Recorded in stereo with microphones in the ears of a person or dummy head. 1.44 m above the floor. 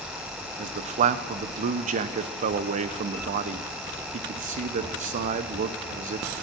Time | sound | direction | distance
0.6 | a man speaking | 40° right (ahead or behind) | 0.5 m